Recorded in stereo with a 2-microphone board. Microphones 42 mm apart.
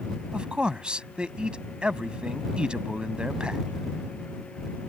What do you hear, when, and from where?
0.3 s a man speaking: 25° right (ahead or behind)